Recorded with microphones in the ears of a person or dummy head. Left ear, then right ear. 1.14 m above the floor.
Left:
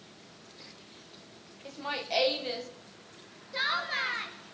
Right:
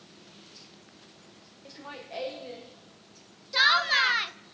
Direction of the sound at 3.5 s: 40° right (ahead or behind).